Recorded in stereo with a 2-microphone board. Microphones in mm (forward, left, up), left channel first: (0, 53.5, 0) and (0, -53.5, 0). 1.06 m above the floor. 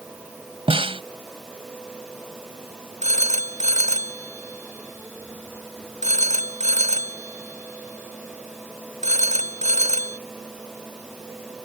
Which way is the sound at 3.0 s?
85° right.